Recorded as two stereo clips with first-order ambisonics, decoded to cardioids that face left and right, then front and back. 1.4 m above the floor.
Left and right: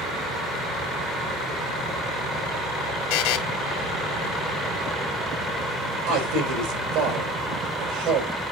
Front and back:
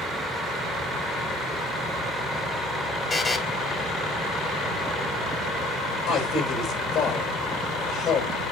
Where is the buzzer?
90° left, 1.2 m.